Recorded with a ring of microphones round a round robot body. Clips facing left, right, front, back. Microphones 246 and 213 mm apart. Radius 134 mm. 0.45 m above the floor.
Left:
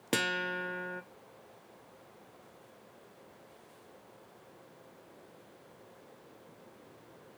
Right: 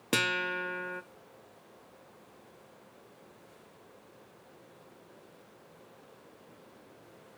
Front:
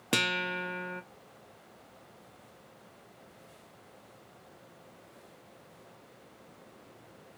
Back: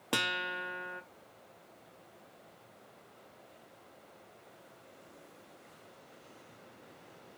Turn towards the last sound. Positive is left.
turn(degrees=-15)